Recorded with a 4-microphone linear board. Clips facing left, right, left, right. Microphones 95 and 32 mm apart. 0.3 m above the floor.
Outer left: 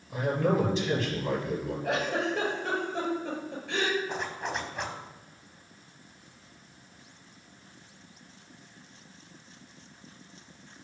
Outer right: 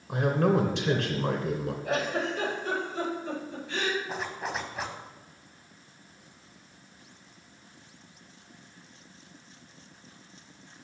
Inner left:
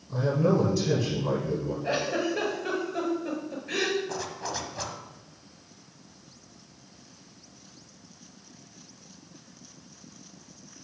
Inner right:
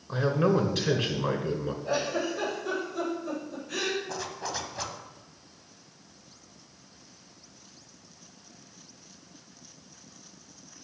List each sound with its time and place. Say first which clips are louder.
0.1 s a man speaking: outer right 2 dB, even; 65° right (ahead or behind), 2.5 m
1.8 s a giggle: even, inner left 1 dB; 70° left (ahead or behind), 4.5 m
4.1 s a zipper: even, inner left 1 dB; 5° right (ahead or behind), 1.3 m